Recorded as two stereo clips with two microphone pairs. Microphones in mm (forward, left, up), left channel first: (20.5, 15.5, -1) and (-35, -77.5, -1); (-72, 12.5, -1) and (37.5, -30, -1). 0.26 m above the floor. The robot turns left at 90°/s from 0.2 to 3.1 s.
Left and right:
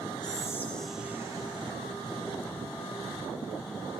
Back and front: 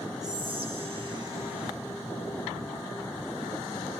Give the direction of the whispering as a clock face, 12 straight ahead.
11 o'clock.